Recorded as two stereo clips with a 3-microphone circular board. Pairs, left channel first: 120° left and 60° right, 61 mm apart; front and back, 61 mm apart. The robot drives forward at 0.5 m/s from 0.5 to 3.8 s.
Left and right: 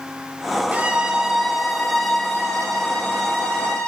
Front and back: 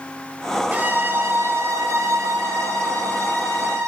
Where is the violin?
120° right, 0.7 m; by 3.9 s 165° right, 1.9 m.